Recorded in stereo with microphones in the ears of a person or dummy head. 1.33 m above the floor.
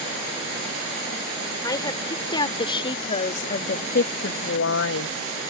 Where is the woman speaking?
25° left (ahead or behind); by 5.5 s 55° left (ahead or behind).